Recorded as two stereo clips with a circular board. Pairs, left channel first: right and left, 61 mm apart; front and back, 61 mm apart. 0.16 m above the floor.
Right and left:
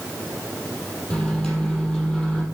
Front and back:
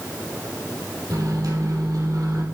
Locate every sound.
1.1 s a microwave: 170° right, 4 m